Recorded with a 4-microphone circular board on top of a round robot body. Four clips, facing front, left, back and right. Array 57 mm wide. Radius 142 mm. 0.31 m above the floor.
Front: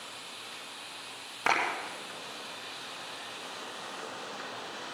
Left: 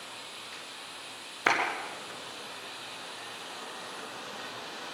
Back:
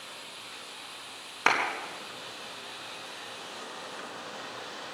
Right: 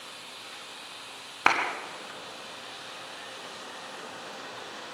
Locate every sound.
1.5 s a clap: 110° right, 4 m